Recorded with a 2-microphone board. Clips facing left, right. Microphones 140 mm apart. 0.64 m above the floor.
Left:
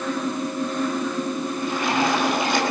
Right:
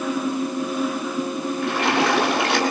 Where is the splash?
80° right, 8 m.